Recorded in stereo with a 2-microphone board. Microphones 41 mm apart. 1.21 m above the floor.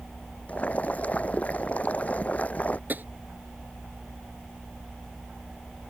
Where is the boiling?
40° left (ahead or behind).